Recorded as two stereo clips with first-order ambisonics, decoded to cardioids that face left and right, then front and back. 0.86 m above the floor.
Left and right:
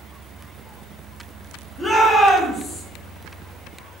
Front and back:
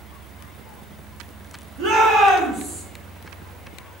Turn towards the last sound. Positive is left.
turn(degrees=175)